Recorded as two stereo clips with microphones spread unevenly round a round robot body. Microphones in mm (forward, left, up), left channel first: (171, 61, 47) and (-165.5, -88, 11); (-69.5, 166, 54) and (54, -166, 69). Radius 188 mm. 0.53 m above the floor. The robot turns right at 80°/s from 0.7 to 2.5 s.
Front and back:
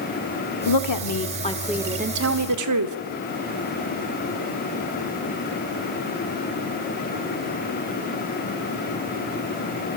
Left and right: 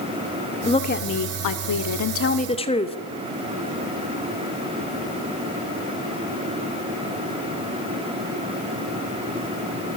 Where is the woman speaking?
35° left, 1.1 m; by 3.0 s straight behind, 1.1 m.